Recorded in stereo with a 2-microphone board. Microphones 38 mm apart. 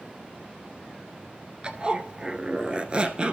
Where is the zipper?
30° right (ahead or behind), 0.7 m.